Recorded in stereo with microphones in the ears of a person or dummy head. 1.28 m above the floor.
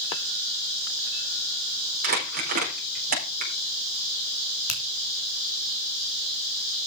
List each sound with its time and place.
2.0 s crumpling: 45° right (ahead or behind), 4.5 m
4.7 s a finger snap: 80° left, 3.5 m